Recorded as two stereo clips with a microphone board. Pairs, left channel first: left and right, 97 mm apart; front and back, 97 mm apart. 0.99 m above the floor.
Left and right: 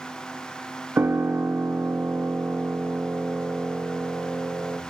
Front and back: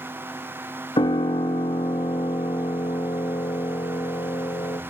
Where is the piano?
20° right, 1.1 m.